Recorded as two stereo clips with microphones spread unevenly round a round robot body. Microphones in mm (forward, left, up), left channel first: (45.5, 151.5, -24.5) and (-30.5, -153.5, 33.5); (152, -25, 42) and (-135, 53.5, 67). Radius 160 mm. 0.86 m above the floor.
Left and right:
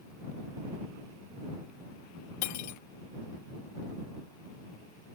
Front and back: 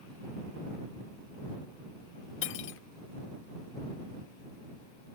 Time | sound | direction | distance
2.4 | cutlery clinking | 35° left | ?